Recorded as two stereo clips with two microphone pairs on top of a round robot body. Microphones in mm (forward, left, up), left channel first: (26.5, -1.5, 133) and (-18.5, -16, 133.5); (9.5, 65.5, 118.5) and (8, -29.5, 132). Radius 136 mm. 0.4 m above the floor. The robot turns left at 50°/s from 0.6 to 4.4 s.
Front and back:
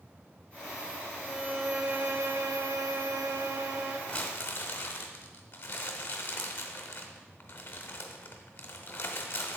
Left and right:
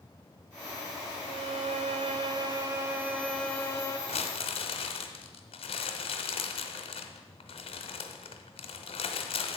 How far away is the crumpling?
About 0.7 m.